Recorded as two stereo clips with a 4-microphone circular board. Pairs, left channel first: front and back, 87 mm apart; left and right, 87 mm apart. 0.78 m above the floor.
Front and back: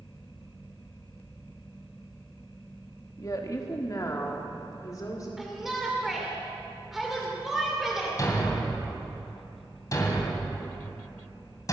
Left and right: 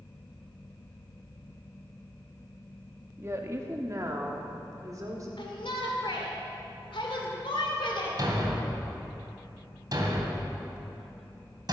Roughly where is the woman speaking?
Ahead right.